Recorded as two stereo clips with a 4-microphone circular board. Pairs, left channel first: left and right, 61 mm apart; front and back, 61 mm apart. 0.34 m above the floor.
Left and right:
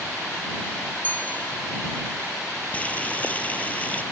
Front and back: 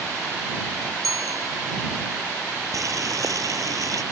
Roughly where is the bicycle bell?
Behind left.